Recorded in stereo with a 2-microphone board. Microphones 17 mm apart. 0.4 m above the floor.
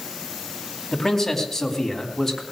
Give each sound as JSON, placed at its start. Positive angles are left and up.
{"t": 0.9, "sound": "a man speaking", "side_deg": 20, "distance_m": 3.5}